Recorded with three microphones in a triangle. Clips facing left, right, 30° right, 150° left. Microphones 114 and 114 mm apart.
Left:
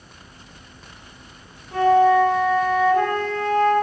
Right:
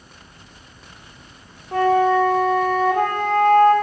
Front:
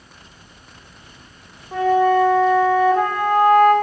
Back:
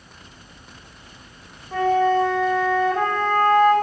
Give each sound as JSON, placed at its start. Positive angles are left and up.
{"t": 1.7, "sound": "a flute", "azimuth_deg": -105, "distance_m": 1.8}